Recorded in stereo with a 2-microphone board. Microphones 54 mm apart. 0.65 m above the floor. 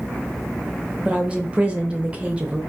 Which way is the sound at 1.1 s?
20° right (ahead or behind).